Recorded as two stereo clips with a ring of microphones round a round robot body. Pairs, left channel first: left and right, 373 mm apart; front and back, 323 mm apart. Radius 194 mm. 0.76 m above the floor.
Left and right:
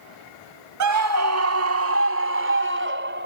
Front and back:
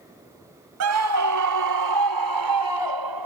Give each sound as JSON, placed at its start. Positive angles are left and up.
{"t": 0.8, "sound": "a scream", "azimuth_deg": -135}